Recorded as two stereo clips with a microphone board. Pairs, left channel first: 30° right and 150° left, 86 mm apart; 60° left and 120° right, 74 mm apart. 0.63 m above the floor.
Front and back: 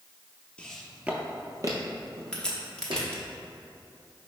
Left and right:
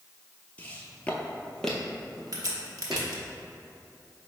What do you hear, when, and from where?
0.6 s footsteps: 30° left, 0.6 m; by 3.1 s 155° left, 1.5 m
2.3 s a crack: 110° right, 0.8 m